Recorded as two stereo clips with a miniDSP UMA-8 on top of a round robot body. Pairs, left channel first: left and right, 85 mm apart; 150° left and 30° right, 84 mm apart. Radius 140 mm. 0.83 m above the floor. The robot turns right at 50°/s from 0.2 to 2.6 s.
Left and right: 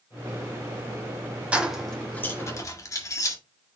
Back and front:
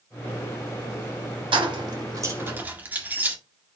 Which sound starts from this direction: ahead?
Keys jangling, at 1.5 s.